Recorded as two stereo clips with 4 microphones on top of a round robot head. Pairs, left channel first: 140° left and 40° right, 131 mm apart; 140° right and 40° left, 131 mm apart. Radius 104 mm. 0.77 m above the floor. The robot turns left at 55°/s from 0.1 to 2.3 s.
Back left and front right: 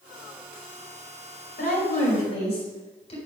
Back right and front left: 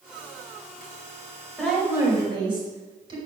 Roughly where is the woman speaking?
Behind left.